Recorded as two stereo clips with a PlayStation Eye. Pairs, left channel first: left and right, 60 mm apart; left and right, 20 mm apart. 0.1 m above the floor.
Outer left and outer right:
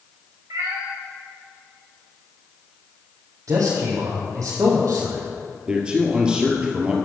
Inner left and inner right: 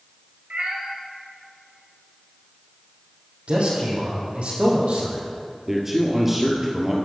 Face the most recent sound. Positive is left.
turn(degrees=-15)  # may be behind; listen again after turning